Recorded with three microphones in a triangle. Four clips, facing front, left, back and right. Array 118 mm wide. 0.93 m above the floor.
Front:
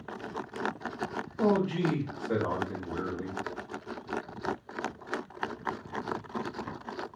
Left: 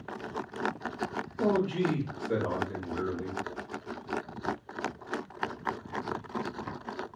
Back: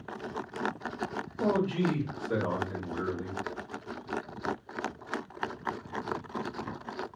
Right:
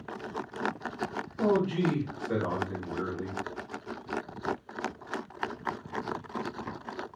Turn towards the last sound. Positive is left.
turn(degrees=-30)